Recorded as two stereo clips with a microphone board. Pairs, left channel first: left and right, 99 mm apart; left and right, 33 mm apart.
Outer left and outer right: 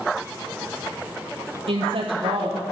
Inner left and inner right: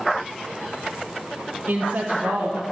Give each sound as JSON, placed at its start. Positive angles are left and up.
{"t": 1.7, "sound": "a woman speaking", "side_deg": -75, "distance_m": 0.6}